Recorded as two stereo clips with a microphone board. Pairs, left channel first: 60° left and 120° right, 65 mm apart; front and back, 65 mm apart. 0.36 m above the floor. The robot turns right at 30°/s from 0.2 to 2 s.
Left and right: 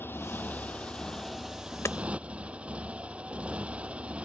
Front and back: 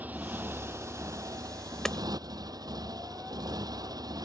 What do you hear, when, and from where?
0.0 s a motorcycle: 115° left; by 4.2 s 170° left
1.9 s hammering: 80° left; by 2.0 s 85° left